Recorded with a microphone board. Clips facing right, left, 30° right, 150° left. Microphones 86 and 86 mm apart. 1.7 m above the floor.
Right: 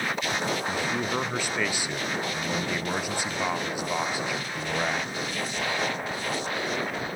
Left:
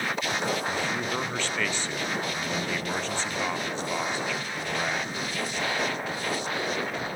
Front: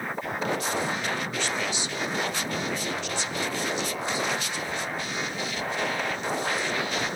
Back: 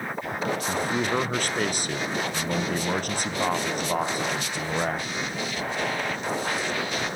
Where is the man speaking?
170° right, 1.2 m.